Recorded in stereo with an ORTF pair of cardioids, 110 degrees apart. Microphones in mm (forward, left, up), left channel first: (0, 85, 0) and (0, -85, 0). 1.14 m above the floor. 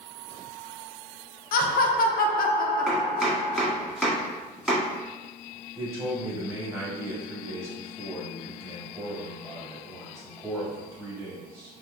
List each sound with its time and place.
1.5 s laughter: 60° left, 0.6 m
2.9 s chopping: straight ahead, 1.7 m
5.8 s a man speaking: 15° right, 2.0 m